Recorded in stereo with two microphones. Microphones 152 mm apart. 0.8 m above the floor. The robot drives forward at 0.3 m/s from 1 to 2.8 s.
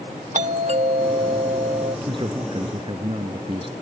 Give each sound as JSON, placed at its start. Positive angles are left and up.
{"t": 0.3, "sound": "a doorbell", "side_deg": -50}
{"t": 2.1, "sound": "a man speaking", "side_deg": -35}